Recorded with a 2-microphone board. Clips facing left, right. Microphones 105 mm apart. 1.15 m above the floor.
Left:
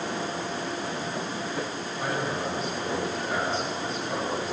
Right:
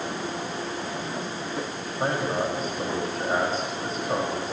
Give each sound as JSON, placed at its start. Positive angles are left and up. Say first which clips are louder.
{"t": 2.0, "sound": "a man speaking", "louder": "right 4 dB", "side_deg": -45, "distance_m": 6.5}